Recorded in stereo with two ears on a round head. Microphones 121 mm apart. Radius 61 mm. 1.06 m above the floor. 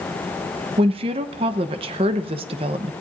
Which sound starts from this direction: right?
A woman speaking, at 0.8 s.